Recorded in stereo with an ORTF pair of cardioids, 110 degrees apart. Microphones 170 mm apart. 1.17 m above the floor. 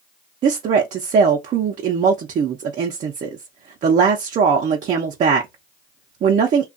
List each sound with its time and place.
0.4 s a woman speaking: 50° right, 0.6 m